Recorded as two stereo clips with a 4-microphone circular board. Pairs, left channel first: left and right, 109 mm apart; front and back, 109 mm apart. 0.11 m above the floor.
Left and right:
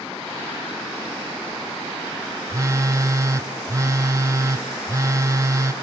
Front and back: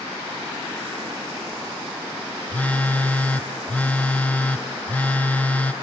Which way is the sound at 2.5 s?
65° right.